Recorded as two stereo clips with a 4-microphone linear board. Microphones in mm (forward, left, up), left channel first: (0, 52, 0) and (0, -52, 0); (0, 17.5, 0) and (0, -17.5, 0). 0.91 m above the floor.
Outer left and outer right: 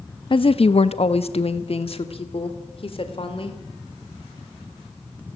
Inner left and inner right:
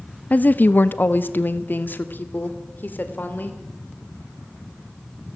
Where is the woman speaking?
50° left (ahead or behind), 0.7 m; by 3.6 s 55° left (ahead or behind), 3.5 m.